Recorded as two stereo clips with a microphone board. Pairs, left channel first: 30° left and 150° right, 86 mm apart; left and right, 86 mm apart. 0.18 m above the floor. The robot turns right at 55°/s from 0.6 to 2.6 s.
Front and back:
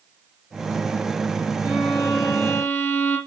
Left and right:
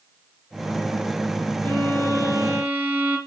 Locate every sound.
1.6 s a violin: 80° right, 3 m; by 3.2 s 25° right, 3 m